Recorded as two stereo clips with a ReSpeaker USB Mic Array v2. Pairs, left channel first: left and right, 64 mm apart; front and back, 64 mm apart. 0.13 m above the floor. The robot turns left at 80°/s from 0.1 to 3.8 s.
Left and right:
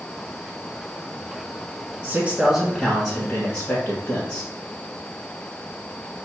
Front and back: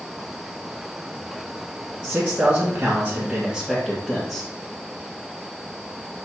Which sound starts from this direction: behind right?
A man speaking, at 2.0 s.